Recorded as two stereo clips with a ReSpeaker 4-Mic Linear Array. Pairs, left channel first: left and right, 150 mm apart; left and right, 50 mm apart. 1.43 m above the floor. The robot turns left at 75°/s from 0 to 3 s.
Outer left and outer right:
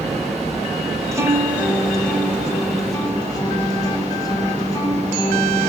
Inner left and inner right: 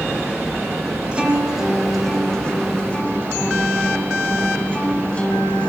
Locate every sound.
1.1 s a guitar: 20° right (ahead or behind), 1.3 m; by 5.7 s 25° left (ahead or behind), 1.3 m